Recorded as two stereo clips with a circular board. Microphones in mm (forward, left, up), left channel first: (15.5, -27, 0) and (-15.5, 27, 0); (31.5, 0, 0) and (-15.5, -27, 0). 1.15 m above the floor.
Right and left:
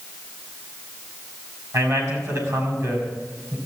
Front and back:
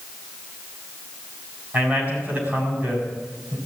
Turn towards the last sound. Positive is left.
turn(degrees=155)